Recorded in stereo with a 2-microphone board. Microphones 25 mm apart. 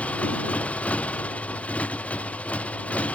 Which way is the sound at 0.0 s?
65° left (ahead or behind).